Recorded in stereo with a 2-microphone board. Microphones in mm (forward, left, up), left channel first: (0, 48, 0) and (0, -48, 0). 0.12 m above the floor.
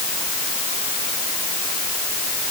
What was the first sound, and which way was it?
Only background noise.